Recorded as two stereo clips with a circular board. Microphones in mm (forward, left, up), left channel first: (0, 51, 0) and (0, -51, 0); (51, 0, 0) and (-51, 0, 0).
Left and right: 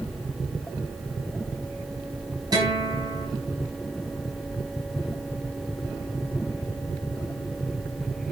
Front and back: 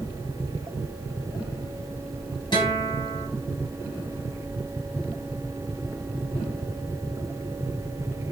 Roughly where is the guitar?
Ahead right.